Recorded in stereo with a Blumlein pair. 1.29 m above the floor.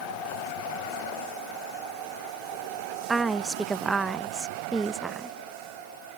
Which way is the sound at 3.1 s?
10° right.